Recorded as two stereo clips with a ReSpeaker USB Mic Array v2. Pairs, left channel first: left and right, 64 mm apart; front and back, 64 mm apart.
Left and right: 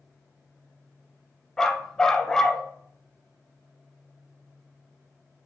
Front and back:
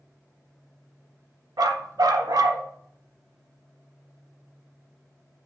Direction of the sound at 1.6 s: 170° left.